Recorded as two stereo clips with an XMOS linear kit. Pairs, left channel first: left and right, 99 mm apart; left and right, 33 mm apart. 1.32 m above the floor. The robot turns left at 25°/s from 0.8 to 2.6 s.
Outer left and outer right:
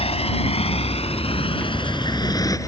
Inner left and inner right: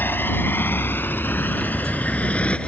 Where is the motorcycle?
80° left; by 2.7 s 35° left (ahead or behind).